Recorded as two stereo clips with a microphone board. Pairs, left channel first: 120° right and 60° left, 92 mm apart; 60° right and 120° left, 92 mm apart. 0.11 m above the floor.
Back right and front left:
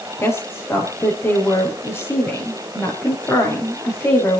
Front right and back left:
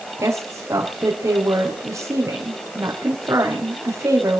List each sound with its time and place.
0.2 s a woman speaking: straight behind, 5 m